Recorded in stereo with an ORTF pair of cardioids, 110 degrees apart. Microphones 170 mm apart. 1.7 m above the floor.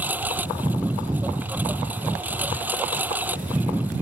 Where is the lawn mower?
10° right.